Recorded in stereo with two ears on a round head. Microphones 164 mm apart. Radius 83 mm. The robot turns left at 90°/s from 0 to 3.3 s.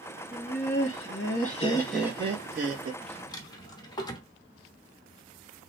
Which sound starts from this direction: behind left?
Laughter, at 0.3 s.